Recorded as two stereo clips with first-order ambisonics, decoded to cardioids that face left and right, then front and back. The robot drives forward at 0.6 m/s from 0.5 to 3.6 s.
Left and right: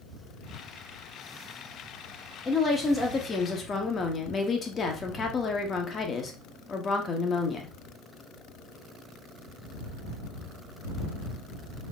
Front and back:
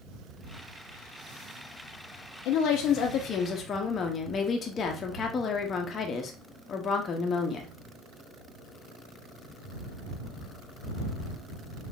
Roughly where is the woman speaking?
Ahead.